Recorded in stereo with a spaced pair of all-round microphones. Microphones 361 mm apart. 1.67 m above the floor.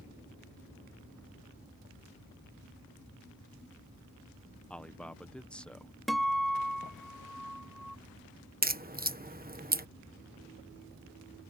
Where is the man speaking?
5° left (ahead or behind).